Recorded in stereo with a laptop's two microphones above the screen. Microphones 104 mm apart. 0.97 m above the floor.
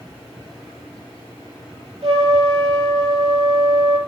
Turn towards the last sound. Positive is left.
turn(degrees=-40)  # may be behind; listen again after turning